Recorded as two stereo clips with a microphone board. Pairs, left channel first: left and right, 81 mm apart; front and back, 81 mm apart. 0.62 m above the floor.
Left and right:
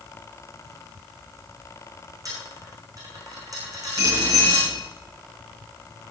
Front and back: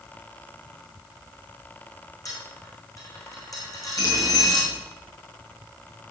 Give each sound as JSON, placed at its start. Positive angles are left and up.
{"t": 2.2, "sound": "a dropped coin", "azimuth_deg": -45, "distance_m": 5.5}
{"t": 4.0, "sound": "a bicycle bell", "azimuth_deg": -40, "distance_m": 7.5}